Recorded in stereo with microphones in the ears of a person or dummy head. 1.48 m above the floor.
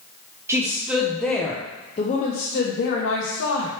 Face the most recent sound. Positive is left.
turn(degrees=75)  # may be behind; listen again after turning